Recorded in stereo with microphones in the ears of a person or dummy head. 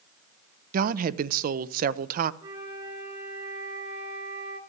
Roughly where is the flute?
Right.